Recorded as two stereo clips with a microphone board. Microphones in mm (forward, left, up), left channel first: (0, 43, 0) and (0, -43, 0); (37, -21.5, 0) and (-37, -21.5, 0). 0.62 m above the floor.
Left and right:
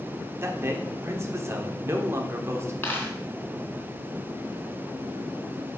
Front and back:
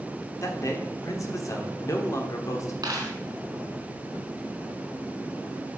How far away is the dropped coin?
About 2.5 m.